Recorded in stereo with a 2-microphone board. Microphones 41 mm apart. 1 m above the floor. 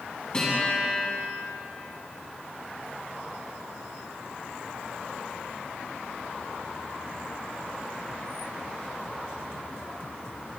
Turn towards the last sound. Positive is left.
turn(degrees=20)  # may be behind; listen again after turning